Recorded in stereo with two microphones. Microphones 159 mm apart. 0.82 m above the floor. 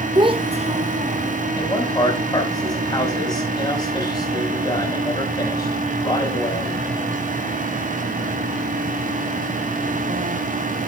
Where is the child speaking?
30° right (ahead or behind), 0.5 m; by 1.4 s 45° right (ahead or behind), 1.2 m.